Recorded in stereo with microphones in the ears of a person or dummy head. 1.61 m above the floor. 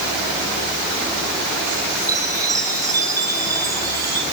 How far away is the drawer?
No drawer in this recording.